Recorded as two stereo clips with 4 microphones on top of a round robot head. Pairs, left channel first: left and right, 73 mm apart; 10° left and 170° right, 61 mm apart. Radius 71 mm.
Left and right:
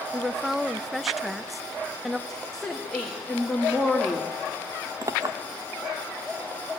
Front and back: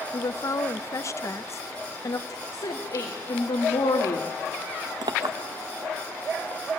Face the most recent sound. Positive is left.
turn(degrees=-145)